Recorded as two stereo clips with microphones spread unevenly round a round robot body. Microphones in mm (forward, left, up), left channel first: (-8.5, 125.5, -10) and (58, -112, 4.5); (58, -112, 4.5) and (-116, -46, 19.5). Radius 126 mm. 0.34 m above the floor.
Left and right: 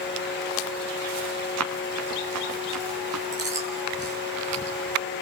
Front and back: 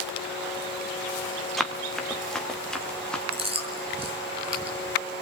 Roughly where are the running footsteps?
Right.